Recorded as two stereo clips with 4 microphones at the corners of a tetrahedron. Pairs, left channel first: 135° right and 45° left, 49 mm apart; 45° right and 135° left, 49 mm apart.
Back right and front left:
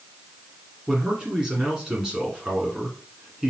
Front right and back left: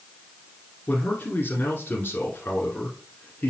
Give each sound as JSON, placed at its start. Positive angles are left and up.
{"t": 0.9, "sound": "a man speaking", "azimuth_deg": -25, "distance_m": 1.7}